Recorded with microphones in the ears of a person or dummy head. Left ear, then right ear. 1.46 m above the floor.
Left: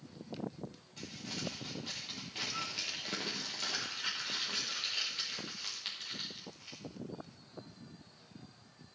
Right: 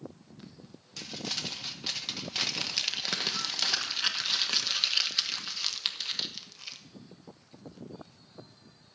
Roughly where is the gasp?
No gasp in this recording.